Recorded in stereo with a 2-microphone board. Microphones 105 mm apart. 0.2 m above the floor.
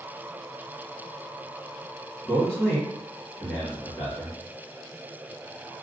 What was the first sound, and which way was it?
A man speaking, 10° left (ahead or behind).